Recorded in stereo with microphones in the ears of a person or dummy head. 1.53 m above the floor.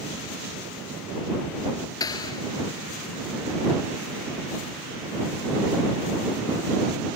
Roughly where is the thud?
Left.